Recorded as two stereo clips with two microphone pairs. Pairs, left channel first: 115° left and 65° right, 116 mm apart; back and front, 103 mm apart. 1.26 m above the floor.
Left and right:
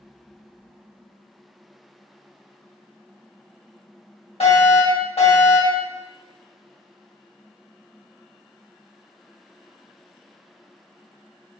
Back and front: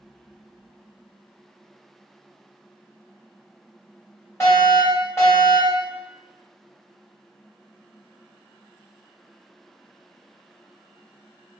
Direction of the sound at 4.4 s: 115° left.